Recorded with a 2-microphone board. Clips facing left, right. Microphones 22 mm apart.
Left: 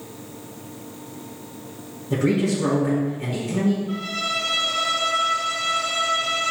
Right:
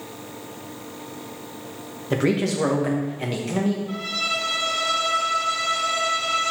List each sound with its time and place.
2.1 s a man speaking: 65° right (ahead or behind), 1.4 m
3.9 s a violin: 25° right (ahead or behind), 1.6 m